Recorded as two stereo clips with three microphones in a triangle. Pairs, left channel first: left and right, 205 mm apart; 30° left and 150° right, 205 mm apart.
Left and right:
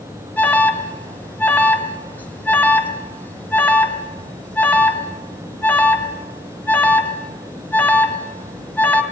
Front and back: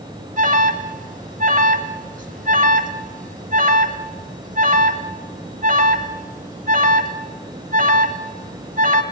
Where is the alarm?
170° left, 2.5 m.